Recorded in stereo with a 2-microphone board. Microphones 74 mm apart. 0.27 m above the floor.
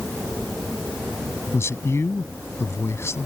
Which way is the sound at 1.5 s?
40° left (ahead or behind).